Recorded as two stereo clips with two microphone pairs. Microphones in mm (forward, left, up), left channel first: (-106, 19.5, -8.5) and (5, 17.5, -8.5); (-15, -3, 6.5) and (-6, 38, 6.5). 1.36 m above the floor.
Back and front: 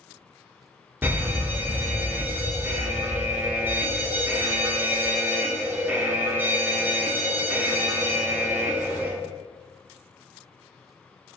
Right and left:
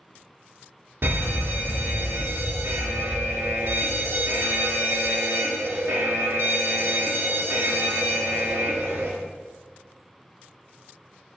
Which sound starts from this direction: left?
An alarm, at 1.0 s.